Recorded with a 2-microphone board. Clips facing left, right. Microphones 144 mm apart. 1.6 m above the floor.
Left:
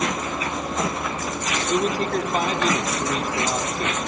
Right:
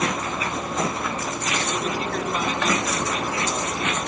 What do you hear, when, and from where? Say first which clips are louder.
1.7 s a man speaking: left 8 dB; 45° left (ahead or behind), 4 m